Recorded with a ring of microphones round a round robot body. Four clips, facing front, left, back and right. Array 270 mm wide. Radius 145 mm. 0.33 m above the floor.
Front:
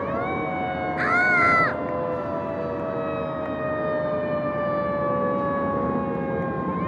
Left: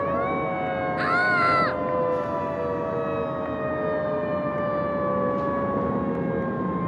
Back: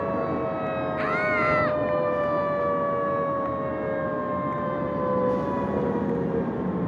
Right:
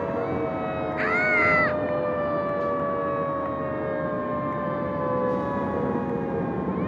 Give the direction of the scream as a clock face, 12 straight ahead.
11 o'clock.